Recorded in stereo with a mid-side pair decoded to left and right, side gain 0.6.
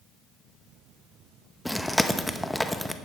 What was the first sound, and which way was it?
Chewing, 5° left.